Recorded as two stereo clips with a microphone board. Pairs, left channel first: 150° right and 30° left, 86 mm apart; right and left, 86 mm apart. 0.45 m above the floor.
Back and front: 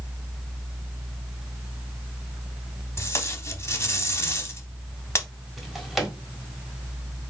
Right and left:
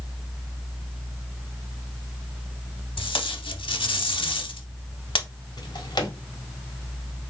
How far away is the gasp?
No gasp in this recording.